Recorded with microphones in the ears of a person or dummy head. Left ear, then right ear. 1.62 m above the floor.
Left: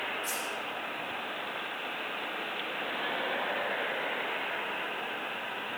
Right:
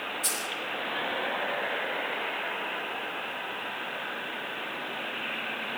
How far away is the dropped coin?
About 1.6 m.